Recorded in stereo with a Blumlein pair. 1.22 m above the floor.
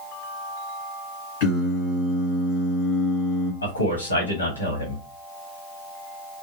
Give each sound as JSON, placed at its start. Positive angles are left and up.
{"t": 1.4, "sound": "singing", "azimuth_deg": 50, "distance_m": 2.5}
{"t": 3.6, "sound": "a man speaking", "azimuth_deg": 70, "distance_m": 1.6}